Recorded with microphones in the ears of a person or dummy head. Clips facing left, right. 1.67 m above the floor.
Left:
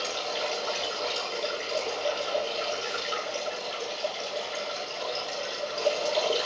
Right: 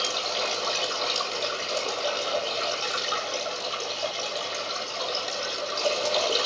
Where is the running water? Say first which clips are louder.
Right 1 dB; 80° right, 7 m.